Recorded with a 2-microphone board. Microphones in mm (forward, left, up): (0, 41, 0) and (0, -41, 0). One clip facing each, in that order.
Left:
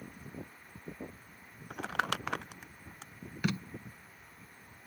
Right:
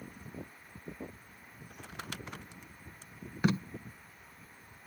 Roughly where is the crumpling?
Left.